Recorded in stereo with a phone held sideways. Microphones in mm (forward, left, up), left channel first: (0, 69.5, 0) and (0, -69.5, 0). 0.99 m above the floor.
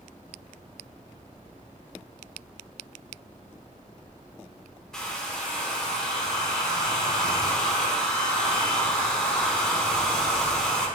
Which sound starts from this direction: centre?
A hair dryer, at 4.9 s.